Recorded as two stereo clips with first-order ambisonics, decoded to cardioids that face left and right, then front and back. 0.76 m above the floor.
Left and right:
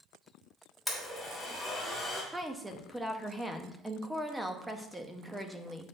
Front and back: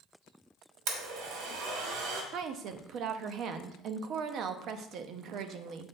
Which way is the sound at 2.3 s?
170° right.